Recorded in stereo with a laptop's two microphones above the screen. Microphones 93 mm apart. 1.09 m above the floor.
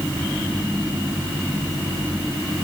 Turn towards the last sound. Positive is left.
No sound to turn to.